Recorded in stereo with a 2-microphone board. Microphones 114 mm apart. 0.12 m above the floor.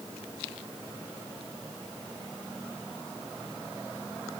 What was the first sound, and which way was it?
Only background noise.